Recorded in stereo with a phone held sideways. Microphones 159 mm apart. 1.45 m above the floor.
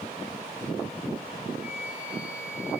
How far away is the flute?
About 4 m.